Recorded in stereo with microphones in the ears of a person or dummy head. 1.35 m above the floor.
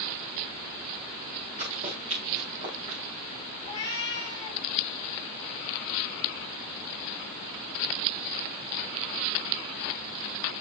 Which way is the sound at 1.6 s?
40° right (ahead or behind).